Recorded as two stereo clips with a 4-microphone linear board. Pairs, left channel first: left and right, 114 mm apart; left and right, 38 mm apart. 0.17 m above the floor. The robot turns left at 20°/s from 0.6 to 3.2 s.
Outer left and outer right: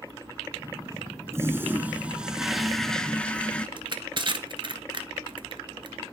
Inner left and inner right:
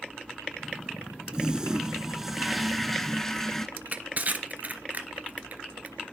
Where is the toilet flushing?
155° right, 0.6 m; by 3.7 s 170° left, 0.6 m.